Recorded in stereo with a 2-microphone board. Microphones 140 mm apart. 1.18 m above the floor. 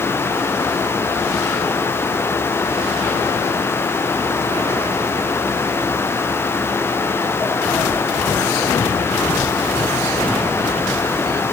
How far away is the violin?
No violin in this recording.